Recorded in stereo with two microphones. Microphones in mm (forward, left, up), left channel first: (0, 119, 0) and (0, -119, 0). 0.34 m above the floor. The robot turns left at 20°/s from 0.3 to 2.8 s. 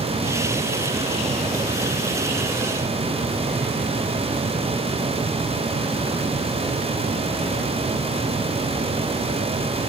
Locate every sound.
Only background noise.